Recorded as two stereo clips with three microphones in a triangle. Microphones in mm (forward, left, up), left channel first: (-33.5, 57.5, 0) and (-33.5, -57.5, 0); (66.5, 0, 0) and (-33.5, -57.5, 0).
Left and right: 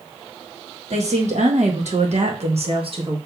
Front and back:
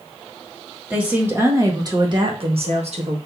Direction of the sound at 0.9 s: 70° right.